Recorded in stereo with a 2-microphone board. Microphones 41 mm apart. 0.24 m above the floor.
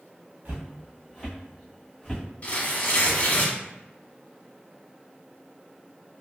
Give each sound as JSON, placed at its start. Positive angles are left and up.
{"t": 0.5, "sound": "footsteps", "side_deg": -45, "distance_m": 1.3}
{"t": 2.4, "sound": "tearing paper", "side_deg": 35, "distance_m": 0.8}